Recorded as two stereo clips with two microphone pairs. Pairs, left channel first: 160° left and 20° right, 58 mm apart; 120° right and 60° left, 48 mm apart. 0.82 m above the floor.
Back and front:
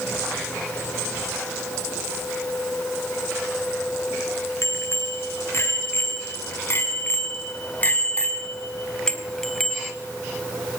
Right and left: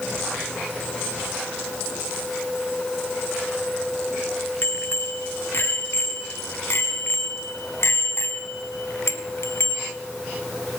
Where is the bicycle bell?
160° right, 7.5 m; by 9.9 s 110° right, 3.5 m.